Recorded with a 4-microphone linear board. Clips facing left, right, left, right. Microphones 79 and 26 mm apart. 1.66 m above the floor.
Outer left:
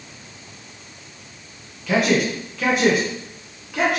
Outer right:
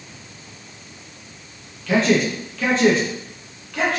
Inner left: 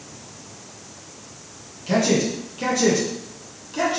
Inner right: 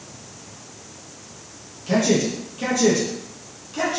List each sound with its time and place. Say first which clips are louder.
1.9 s a man speaking: outer right 1 dB, even; 10° left (ahead or behind), 1.2 m